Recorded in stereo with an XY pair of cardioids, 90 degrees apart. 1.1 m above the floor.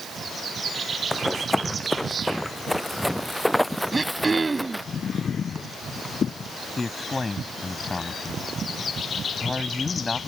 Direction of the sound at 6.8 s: 25° left.